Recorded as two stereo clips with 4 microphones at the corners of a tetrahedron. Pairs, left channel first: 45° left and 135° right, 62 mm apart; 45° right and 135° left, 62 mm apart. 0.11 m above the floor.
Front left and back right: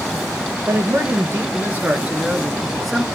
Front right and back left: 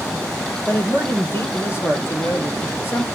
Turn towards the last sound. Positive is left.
turn(degrees=-40)